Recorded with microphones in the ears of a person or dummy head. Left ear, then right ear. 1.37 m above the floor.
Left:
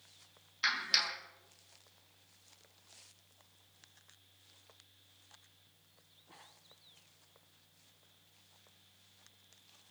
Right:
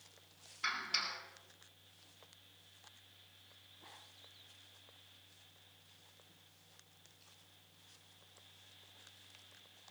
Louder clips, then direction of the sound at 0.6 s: Left 6 dB; 40° left (ahead or behind).